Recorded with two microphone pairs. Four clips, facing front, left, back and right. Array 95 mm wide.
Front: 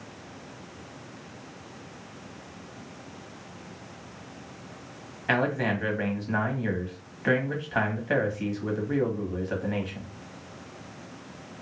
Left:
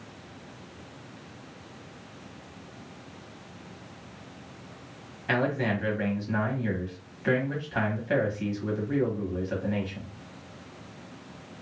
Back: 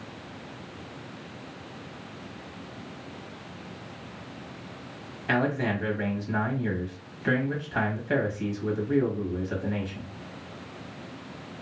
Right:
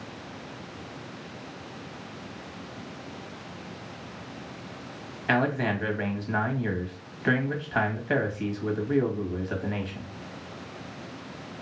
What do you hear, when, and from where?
5.3 s a man speaking: 45° right, 1.0 m